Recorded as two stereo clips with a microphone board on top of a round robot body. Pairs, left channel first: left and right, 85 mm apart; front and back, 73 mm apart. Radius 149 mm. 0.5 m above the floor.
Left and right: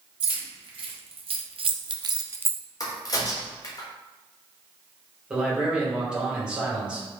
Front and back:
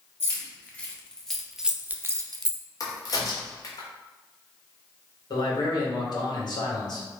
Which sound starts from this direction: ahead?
A man speaking, at 5.3 s.